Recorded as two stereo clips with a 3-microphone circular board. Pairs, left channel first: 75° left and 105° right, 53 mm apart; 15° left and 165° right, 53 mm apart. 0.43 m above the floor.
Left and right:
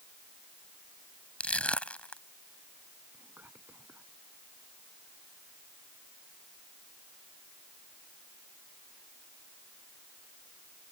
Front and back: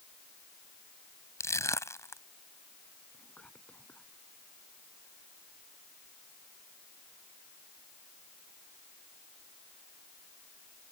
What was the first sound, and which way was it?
Crushing, 10° left.